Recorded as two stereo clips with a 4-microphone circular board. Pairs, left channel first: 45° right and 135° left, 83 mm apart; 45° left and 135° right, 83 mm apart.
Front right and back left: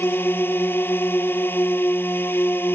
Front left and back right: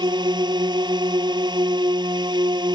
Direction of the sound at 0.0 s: 110° right.